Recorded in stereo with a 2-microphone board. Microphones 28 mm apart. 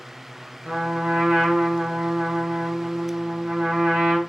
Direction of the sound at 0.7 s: 50° right (ahead or behind).